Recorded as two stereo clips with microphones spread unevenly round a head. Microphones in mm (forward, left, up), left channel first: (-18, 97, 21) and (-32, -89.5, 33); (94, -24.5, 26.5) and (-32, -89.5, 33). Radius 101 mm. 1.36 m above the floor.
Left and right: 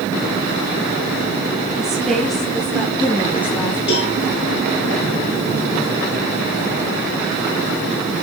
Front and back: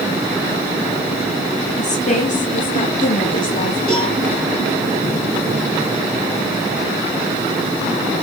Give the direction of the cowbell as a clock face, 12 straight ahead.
8 o'clock.